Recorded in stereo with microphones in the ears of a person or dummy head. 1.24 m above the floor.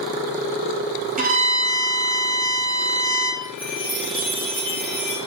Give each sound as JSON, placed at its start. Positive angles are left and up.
{"t": 1.2, "sound": "a violin", "side_deg": -40, "distance_m": 2.0}
{"t": 3.4, "sound": "a chime", "side_deg": 10, "distance_m": 1.8}